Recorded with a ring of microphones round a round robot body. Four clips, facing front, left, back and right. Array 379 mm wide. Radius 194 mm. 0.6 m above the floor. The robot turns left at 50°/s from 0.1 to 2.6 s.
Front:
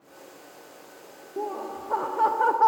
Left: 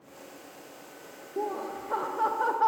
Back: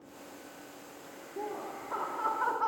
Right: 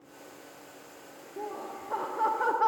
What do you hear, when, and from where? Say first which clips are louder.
1.4 s laughter: left 6 dB, front 7 dB; 45° left, 0.9 m; by 2.7 s 15° right, 0.9 m